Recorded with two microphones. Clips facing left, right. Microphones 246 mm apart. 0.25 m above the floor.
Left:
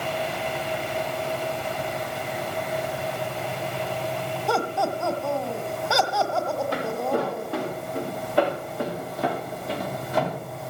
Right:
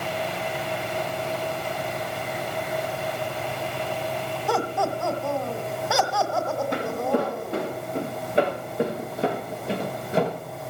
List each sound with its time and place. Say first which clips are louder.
4.5 s laughter: even; 5° right (ahead or behind), 1.4 m
6.7 s footsteps: right 2 dB; 20° right (ahead or behind), 6.5 m; by 10.4 s 30° right (ahead or behind), 3 m